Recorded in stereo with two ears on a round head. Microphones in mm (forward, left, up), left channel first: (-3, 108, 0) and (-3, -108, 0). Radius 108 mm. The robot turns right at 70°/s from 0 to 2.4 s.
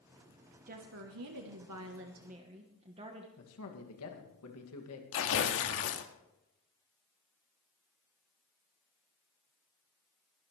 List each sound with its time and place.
0.7 s a woman speaking: 145° right, 1.2 m; by 3.3 s 25° right, 1.2 m
3.4 s a man speaking: 70° left (ahead or behind), 2.5 m
5.1 s tearing paper: 60° left (ahead or behind), 1.4 m